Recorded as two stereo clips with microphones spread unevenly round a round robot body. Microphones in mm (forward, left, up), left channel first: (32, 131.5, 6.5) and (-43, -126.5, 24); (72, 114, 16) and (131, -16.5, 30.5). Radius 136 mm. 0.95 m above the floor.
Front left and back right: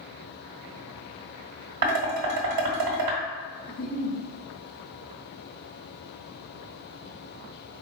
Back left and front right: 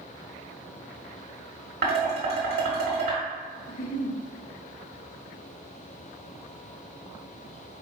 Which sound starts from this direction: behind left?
A giggle, at 3.7 s.